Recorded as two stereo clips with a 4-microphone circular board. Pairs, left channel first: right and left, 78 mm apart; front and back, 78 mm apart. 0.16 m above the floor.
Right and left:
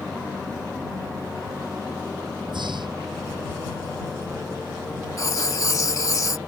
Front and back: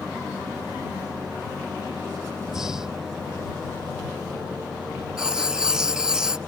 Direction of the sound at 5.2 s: 105° right.